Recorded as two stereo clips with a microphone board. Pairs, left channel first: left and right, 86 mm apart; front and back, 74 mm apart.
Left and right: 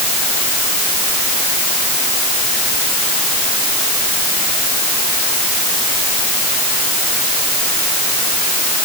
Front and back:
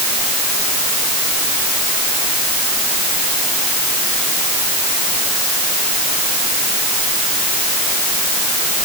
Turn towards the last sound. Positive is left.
No sound to turn to.